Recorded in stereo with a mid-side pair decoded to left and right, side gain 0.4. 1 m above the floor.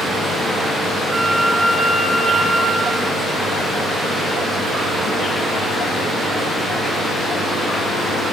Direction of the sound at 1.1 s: 45° right.